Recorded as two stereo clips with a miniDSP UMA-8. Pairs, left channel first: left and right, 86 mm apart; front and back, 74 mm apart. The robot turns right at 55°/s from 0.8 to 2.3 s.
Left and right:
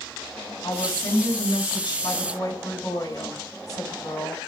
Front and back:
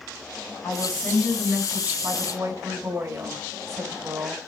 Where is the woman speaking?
50° left, 4.5 m; by 4.4 s 130° left, 4.5 m.